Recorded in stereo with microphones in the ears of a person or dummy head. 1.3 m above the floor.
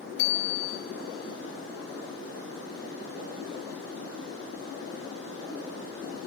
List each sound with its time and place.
0.2 s a bicycle bell: 75° left (ahead or behind), 3.5 m